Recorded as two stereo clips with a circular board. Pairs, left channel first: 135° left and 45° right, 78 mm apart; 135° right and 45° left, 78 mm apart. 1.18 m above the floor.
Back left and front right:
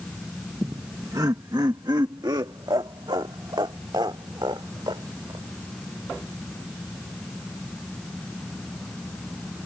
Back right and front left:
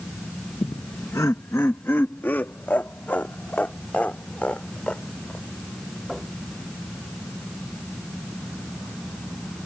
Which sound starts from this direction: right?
Laughter, at 0.6 s.